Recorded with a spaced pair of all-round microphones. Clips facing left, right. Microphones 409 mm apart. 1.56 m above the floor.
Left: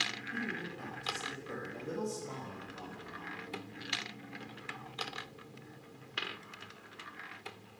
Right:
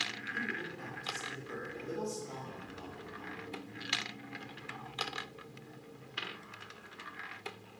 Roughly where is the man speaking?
Left.